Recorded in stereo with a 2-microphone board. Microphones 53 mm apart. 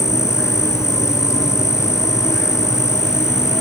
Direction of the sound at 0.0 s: 70° left (ahead or behind).